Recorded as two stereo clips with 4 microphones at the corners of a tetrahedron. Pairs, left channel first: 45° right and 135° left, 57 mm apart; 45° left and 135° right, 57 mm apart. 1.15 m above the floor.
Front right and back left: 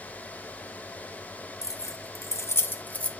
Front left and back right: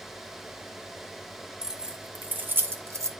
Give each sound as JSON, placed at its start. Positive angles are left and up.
{"t": 1.6, "sound": "keys jangling", "azimuth_deg": -60, "distance_m": 1.0}